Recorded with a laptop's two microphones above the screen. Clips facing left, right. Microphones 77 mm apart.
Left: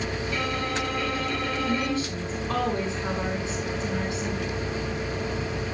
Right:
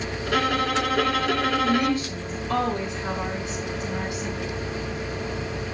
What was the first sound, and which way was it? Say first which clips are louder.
A violin: right 9 dB; 80° right.